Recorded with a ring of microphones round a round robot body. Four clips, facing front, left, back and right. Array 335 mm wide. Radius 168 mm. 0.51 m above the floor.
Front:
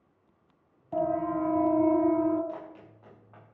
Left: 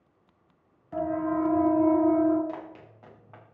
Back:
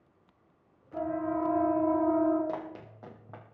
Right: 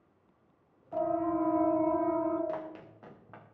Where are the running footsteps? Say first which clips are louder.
Even, back 3 dB; 165° right, 3.5 m.